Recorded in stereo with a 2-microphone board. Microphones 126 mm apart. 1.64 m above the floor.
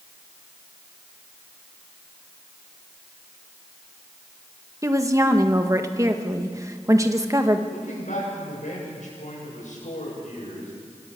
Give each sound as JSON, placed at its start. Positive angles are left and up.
{"t": 4.8, "sound": "a woman speaking", "side_deg": -25, "distance_m": 1.7}
{"t": 7.7, "sound": "a man speaking", "side_deg": 90, "distance_m": 7.5}